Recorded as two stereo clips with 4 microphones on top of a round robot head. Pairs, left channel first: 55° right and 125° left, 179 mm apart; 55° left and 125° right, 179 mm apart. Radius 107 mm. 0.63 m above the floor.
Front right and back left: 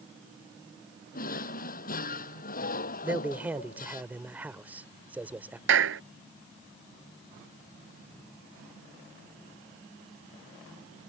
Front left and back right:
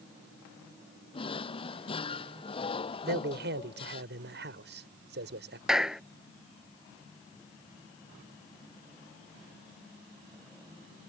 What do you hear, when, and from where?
1.1 s a drawer: 10° right
3.0 s a man speaking: 150° right
5.7 s a clap: 145° left